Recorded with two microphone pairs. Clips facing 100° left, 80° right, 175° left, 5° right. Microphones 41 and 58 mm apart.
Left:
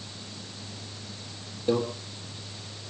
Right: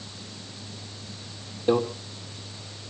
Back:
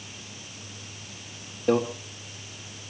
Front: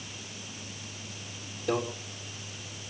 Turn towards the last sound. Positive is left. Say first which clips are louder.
# right 3 dB, back 7 dB
turn(degrees=-135)